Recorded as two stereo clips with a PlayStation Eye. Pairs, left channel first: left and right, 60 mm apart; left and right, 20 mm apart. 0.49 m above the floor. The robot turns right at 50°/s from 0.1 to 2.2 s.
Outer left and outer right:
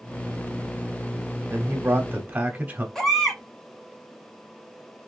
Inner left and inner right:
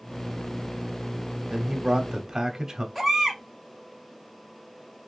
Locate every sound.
1.5 s a man speaking: 80° right, 1.1 m; by 2.9 s 45° right, 1.1 m
3.0 s a baby crying: 10° left (ahead or behind), 1.3 m